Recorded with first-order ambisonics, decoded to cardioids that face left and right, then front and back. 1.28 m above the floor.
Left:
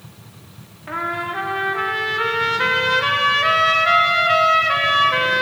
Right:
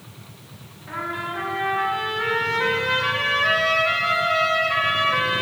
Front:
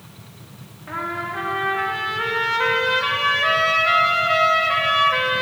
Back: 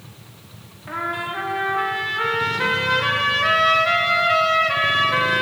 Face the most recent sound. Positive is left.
turn(degrees=100)